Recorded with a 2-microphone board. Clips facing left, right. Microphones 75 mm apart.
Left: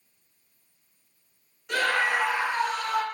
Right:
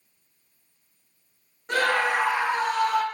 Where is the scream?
40° right (ahead or behind), 3.5 m; by 3.0 s 65° right (ahead or behind), 3 m.